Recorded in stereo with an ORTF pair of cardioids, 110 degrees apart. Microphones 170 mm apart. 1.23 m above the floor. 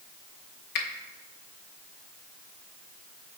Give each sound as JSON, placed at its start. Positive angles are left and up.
{"t": 0.8, "sound": "a finger snap", "azimuth_deg": 60, "distance_m": 0.9}